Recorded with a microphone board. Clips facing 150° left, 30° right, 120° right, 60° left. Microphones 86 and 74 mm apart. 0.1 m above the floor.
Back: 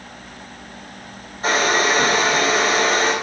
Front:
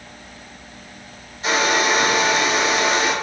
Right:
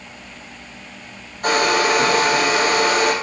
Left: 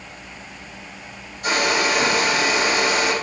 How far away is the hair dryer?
About 3 m.